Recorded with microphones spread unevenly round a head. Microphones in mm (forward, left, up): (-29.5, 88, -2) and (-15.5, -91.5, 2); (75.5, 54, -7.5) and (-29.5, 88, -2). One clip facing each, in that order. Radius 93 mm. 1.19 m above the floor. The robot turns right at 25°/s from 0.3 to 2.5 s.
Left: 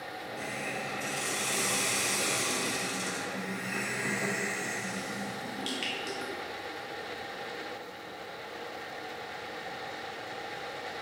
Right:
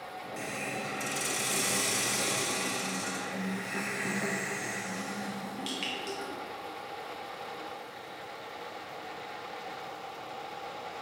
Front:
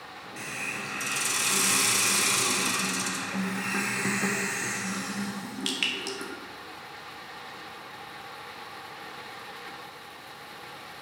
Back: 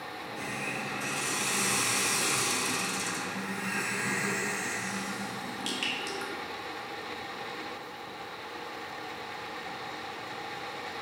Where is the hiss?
50° right, 1.4 m; by 6.3 s 5° left, 1.4 m.